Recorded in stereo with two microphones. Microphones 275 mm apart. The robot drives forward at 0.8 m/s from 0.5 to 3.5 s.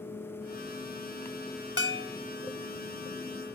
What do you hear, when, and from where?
1.8 s a bell: 50° left (ahead or behind); by 2.2 s 45° left (ahead or behind)